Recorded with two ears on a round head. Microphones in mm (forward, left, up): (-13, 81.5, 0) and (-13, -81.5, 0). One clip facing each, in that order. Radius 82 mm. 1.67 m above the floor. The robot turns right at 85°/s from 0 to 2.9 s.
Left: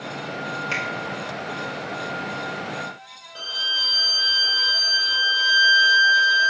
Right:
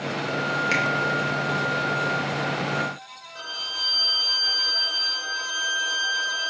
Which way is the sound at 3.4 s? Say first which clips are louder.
Left 2 dB; 40° left (ahead or behind).